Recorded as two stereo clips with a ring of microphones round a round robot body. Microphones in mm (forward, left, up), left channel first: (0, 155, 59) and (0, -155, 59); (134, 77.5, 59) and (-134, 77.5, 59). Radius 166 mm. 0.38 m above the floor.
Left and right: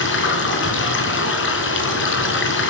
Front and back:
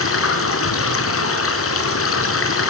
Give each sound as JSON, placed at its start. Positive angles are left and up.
{"t": 0.0, "sound": "running water", "azimuth_deg": 35, "distance_m": 4.5}